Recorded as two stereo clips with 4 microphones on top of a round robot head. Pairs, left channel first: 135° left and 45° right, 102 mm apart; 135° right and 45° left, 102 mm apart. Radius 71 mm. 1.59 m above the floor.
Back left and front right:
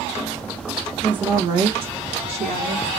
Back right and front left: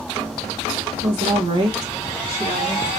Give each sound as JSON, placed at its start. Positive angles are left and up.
{"t": 1.0, "sound": "a woman speaking", "azimuth_deg": 35, "distance_m": 0.7}